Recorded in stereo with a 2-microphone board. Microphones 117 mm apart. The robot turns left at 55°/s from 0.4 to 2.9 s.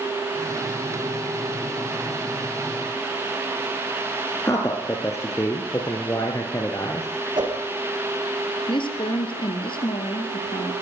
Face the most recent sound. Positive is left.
turn(degrees=50)  # may be behind; listen again after turning